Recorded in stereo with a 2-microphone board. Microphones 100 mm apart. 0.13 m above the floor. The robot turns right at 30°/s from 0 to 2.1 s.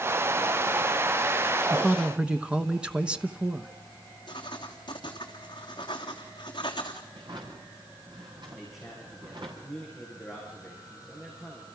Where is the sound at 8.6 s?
5° right (ahead or behind), 8 m.